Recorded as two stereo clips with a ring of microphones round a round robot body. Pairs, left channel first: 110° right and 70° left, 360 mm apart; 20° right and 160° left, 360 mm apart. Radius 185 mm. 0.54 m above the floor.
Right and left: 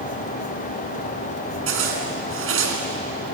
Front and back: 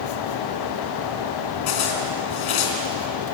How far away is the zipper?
About 3 m.